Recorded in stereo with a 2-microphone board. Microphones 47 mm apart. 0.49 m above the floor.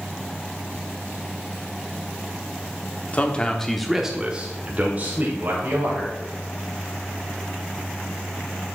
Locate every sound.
3.1 s a man speaking: 30° left (ahead or behind), 0.8 m; by 6.1 s 45° right (ahead or behind), 2.0 m